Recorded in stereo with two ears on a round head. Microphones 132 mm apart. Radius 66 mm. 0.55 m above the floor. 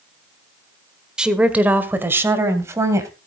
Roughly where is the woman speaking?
Centre.